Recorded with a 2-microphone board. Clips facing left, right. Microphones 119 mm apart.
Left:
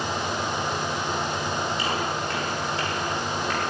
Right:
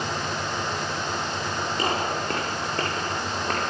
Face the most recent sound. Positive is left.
turn(degrees=-50)  # may be behind; listen again after turning